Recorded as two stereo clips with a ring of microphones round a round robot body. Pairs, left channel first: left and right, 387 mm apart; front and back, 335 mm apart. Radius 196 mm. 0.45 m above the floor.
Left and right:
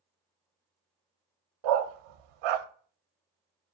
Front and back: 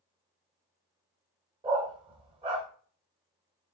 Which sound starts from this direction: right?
A dog barking, at 1.6 s.